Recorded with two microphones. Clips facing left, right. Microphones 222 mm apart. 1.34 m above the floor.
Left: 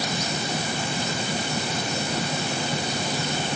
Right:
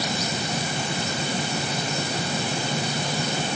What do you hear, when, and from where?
Only background noise.